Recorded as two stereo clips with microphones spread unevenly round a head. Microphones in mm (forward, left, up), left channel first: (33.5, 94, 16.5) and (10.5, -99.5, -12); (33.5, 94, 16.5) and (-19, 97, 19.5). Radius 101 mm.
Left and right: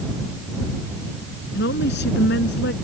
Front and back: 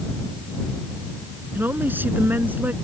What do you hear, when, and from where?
1.6 s a woman speaking: 125° left; by 2.7 s 120° left